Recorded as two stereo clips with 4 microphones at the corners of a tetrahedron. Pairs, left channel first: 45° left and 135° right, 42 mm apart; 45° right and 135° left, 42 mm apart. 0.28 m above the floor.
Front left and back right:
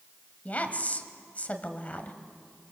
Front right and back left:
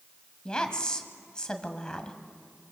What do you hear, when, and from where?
0.5 s a woman speaking: 15° left, 2.0 m